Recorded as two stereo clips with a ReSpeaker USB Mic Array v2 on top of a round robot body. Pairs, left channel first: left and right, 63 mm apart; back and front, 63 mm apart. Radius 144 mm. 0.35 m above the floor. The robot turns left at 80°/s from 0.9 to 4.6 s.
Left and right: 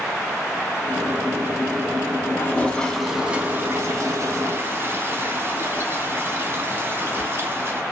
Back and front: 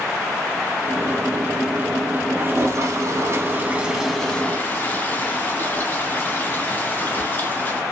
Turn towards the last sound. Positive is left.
turn(degrees=-125)